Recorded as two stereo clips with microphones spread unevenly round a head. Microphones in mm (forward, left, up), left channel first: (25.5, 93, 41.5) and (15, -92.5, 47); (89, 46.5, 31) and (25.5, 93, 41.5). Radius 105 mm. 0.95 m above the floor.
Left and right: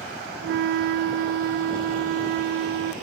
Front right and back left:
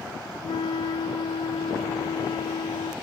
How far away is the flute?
About 0.5 m.